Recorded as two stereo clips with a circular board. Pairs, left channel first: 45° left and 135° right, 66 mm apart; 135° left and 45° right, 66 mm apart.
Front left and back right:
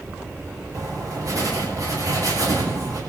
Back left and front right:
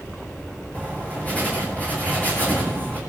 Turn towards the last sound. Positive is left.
turn(degrees=-160)